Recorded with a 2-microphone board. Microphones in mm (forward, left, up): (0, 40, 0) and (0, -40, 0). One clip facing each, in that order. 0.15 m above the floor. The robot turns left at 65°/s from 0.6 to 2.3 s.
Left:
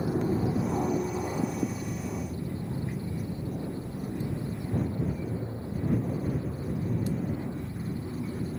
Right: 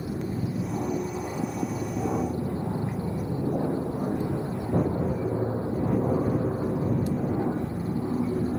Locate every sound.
0.0 s an aircraft: 35° left (ahead or behind); by 8.6 s 75° right (ahead or behind)